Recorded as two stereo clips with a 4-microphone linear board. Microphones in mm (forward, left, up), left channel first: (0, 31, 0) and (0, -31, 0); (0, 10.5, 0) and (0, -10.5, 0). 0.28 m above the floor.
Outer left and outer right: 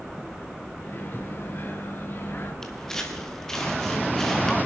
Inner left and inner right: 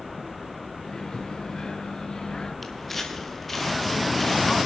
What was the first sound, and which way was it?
A microwave, 35° left (ahead or behind).